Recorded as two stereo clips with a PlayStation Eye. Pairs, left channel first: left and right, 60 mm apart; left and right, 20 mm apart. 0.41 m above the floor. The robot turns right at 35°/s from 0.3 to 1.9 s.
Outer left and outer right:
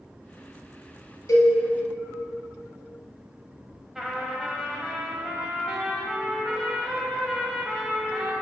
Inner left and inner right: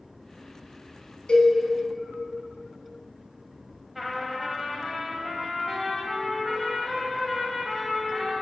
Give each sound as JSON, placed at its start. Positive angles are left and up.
{"t": 1.3, "sound": "a cowbell", "side_deg": 80, "distance_m": 1.0}
{"t": 4.0, "sound": "a trumpet", "side_deg": -5, "distance_m": 0.9}